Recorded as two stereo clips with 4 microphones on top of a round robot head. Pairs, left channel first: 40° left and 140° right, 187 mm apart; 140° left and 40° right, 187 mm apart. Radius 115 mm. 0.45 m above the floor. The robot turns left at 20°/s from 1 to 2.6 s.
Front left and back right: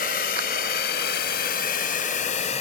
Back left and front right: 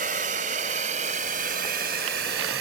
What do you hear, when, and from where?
0.0 s a drone: straight ahead; by 2.6 s 15° right